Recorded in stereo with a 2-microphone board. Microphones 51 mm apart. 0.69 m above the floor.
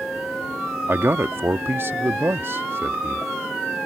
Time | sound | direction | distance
0.9 | a man speaking | 45° right (ahead or behind) | ?